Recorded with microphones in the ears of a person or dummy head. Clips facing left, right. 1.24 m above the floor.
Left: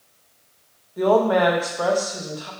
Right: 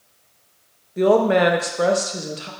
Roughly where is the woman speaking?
Right.